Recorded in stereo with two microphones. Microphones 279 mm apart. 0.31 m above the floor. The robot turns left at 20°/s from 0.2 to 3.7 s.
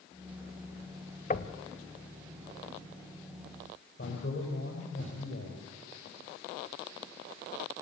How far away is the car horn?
No car horn in this recording.